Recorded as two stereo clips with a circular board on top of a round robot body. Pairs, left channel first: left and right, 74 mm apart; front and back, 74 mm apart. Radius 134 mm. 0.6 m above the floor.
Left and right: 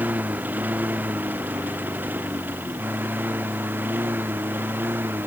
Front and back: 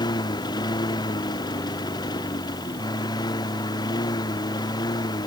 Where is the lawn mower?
25° right.